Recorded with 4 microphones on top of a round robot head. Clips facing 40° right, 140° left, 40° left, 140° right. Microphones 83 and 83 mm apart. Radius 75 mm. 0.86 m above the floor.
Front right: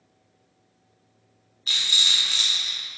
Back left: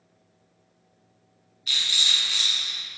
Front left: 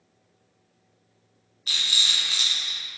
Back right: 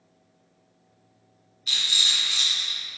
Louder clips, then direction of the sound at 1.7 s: Front right 1 dB, even; 5° left.